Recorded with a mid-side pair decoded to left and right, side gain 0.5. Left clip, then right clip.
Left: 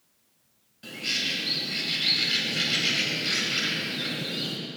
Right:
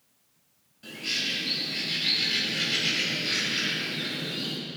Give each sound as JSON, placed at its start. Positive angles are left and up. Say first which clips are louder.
{"t": 0.8, "sound": "a bird", "louder": "left 1 dB", "azimuth_deg": 25, "distance_m": 4.0}